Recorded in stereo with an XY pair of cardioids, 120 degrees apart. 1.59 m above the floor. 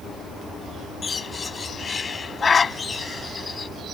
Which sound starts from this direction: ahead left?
A bird, at 1.0 s.